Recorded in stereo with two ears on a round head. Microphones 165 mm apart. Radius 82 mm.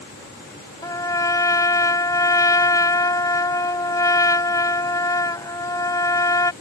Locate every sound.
0.8 s a trumpet: 20° left (ahead or behind)